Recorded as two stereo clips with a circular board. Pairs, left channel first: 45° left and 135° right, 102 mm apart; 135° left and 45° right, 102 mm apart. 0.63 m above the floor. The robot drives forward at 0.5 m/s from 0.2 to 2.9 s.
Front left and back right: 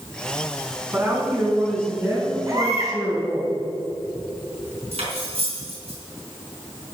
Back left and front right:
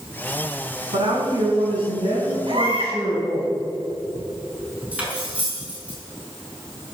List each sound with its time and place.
0.9 s a woman speaking: 70° right, 5.5 m; by 3.5 s 80° right, 5 m
2.5 s a baby crying: 75° right, 4 m; by 3.0 s 80° right, 4 m
4.9 s cutlery clinking: 120° right, 5 m